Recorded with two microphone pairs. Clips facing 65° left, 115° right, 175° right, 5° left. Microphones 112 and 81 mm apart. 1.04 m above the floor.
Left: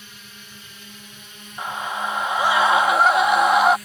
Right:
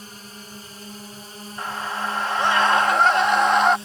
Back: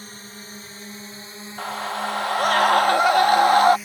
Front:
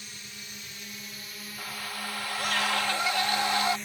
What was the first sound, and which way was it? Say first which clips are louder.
A drone: right 5 dB, back 7 dB; 145° right.